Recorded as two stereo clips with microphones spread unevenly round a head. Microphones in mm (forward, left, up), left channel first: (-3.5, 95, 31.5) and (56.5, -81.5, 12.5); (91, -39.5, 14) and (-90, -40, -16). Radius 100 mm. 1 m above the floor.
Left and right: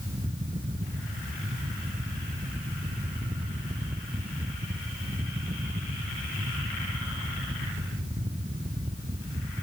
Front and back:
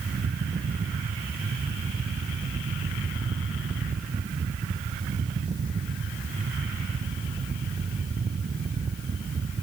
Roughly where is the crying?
No crying in this recording.